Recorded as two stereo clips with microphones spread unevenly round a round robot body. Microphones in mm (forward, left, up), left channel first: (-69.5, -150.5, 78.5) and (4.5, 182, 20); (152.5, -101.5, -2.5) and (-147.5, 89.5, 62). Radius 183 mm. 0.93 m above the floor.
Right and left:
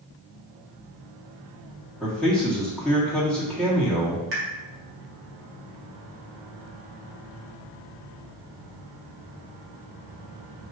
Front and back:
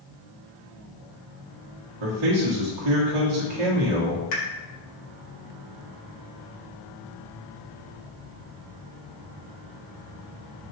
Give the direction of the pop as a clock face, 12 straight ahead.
11 o'clock.